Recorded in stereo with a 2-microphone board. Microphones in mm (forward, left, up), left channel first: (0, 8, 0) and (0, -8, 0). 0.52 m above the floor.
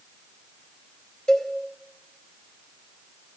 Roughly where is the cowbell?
Left.